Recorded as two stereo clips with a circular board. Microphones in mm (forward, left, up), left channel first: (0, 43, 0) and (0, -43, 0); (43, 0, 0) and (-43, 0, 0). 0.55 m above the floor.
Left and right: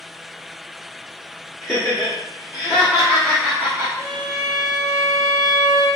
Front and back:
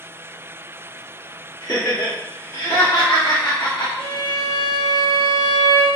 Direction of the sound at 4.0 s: 45° right.